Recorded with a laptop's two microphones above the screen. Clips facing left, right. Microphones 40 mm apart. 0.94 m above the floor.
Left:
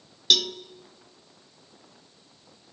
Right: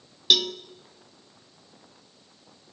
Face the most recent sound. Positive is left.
turn(degrees=-10)  # may be behind; listen again after turning